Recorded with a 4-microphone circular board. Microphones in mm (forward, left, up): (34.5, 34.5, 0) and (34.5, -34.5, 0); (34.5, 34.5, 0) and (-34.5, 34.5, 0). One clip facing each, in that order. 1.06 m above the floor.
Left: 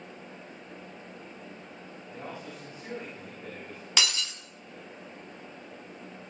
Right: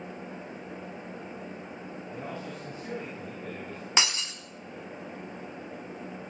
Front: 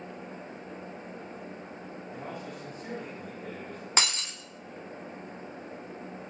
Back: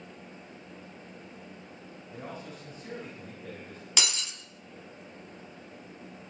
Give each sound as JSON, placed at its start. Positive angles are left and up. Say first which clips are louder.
{"t": 2.1, "sound": "a man speaking", "louder": "right 2 dB, front 1 dB", "azimuth_deg": 15, "distance_m": 8.0}
{"t": 4.0, "sound": "breaking glass", "louder": "right 1 dB, front 3 dB", "azimuth_deg": -35, "distance_m": 1.3}